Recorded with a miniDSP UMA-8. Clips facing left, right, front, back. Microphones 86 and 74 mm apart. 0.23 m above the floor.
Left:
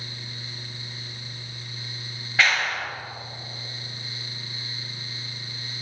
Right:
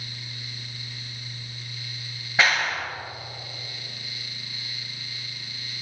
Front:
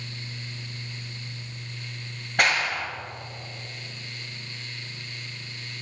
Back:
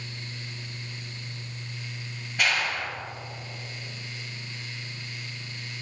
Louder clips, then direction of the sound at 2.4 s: Even, front 3 dB; 20° right.